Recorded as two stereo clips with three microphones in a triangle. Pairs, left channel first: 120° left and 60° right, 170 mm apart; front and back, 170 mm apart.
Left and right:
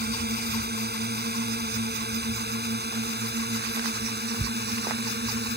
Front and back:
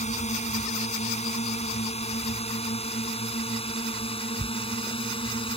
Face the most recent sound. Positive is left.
turn(degrees=-60)